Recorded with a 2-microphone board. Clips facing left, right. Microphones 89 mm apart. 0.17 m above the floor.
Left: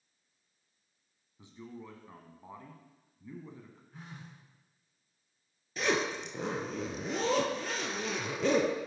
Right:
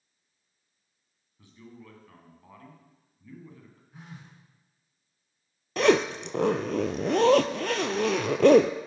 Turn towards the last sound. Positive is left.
turn(degrees=-75)  # may be behind; listen again after turning